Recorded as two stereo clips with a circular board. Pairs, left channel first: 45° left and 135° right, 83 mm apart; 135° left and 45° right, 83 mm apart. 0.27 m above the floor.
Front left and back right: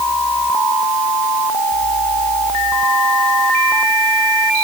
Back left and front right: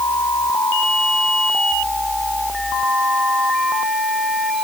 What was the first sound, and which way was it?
Only background noise.